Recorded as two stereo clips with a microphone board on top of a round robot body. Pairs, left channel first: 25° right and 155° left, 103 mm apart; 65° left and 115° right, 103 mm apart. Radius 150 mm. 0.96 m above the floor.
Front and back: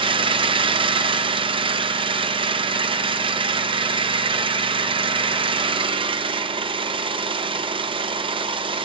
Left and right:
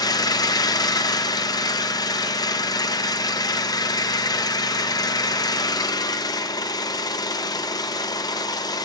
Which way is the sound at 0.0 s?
120° left.